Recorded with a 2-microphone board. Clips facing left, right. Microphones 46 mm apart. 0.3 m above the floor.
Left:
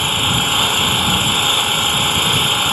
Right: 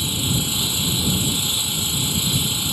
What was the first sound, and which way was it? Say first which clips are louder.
An engine running: left 8 dB; 55° left (ahead or behind).